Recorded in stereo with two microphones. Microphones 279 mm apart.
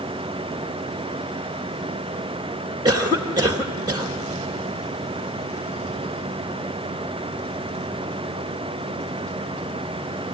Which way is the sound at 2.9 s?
15° right (ahead or behind).